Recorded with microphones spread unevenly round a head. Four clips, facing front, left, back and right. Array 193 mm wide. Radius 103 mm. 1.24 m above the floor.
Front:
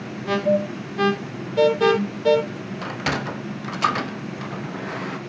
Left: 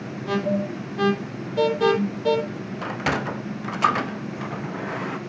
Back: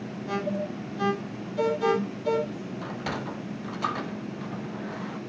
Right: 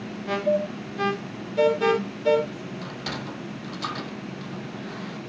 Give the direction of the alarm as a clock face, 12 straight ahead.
12 o'clock.